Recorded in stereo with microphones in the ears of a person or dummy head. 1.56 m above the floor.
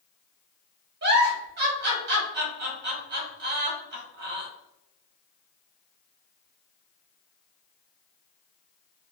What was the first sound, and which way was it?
A giggle, 65° right (ahead or behind).